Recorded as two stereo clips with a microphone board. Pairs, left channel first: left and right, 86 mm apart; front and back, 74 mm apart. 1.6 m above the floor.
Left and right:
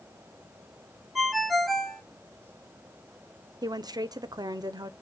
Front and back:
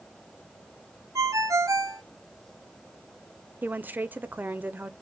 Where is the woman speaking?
115° right, 0.5 m.